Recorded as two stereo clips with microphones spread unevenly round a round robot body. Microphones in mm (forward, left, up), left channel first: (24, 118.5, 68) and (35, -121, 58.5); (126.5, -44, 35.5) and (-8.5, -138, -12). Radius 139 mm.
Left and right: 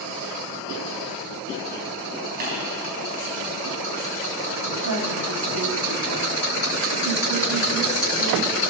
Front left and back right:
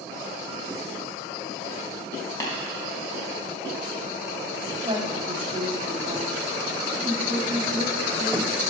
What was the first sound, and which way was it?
Tapping, 35° right.